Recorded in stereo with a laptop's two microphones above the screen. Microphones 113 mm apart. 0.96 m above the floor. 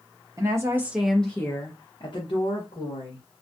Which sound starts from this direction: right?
A woman speaking, at 0.4 s.